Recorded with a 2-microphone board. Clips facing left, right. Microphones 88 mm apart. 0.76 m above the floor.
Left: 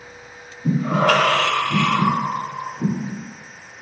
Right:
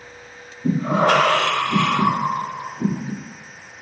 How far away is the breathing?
About 1.4 m.